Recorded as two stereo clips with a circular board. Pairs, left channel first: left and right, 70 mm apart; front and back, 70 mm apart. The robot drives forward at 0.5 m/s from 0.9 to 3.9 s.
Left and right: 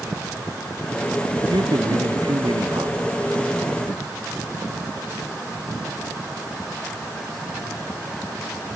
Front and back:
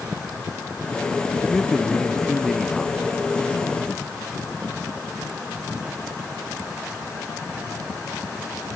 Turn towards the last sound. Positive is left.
turn(degrees=-90)